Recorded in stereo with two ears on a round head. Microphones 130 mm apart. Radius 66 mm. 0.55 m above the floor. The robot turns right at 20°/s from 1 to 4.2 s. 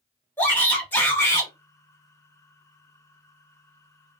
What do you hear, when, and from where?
0.4 s a shout: 15° left (ahead or behind), 1.4 m; by 1.5 s 20° left (ahead or behind), 1.4 m